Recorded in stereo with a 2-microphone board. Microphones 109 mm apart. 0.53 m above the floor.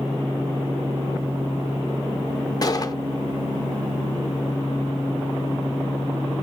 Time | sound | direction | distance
2.6 | a gunshot | 35° left (ahead or behind) | 0.5 m